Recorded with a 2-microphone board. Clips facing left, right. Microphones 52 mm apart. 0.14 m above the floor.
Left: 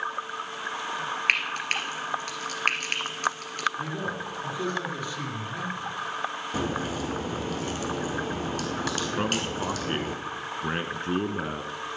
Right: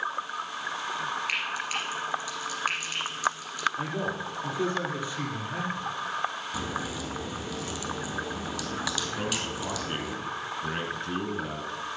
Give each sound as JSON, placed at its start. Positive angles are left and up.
{"t": 1.3, "sound": "frying", "side_deg": 55, "distance_m": 2.0}
{"t": 3.8, "sound": "a man speaking", "side_deg": -15, "distance_m": 4.0}
{"t": 6.5, "sound": "a crack", "side_deg": 45, "distance_m": 2.0}
{"t": 9.2, "sound": "a man speaking", "side_deg": 30, "distance_m": 1.2}